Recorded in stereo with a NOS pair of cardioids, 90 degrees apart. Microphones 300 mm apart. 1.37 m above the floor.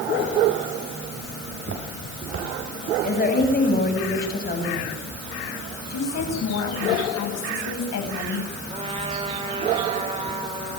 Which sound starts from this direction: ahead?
A trumpet, at 8.7 s.